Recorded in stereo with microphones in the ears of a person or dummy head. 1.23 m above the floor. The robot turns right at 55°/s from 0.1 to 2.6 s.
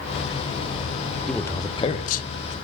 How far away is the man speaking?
About 1.1 m.